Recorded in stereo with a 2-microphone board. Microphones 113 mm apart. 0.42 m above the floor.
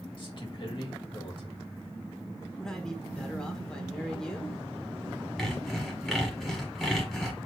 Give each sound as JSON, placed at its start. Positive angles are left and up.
{"t": 0.2, "sound": "a man speaking", "side_deg": 50, "distance_m": 1.9}
{"t": 2.6, "sound": "a man speaking", "side_deg": 5, "distance_m": 1.2}
{"t": 5.4, "sound": "sawing", "side_deg": 0, "distance_m": 1.3}